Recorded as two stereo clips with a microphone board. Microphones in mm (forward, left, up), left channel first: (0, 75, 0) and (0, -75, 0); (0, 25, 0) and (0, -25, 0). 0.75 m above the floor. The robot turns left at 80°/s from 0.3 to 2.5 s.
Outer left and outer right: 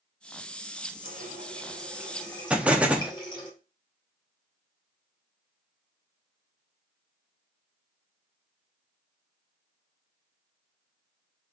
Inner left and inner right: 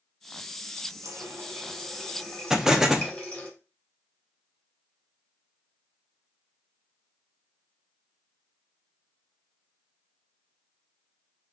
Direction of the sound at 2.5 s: 10° right (ahead or behind).